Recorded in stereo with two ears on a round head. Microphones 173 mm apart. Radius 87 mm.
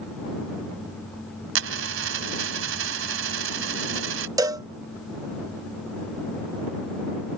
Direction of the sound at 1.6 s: 80° right.